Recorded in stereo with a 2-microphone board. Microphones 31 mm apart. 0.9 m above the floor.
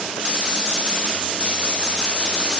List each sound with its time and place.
Only background noise.